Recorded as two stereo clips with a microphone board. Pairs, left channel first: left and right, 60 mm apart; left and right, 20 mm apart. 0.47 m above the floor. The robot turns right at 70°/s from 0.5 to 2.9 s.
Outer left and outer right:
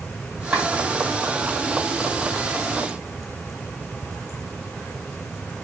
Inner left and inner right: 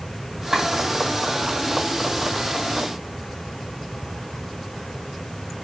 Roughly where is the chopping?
Right.